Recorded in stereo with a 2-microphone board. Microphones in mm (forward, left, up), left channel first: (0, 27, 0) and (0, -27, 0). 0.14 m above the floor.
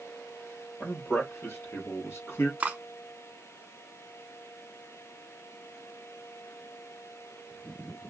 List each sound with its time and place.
0.8 s a man speaking: 40° left (ahead or behind), 3 m; by 2.5 s 55° left (ahead or behind), 2 m
2.6 s cutlery clinking: 25° right (ahead or behind), 0.6 m